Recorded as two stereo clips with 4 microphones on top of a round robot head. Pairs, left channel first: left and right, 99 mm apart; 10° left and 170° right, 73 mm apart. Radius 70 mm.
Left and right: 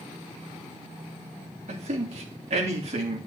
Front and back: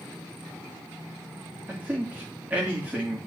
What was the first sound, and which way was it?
A man speaking, 100° right.